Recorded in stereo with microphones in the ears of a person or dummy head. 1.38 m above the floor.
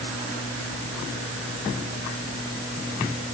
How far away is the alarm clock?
No alarm clock in this recording.